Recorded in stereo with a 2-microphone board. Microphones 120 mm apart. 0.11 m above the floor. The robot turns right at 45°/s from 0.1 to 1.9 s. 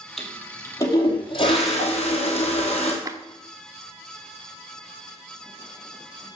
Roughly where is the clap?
Right.